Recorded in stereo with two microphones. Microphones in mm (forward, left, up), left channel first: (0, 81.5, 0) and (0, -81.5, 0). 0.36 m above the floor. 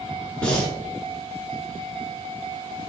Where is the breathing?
5° left (ahead or behind), 1.1 m.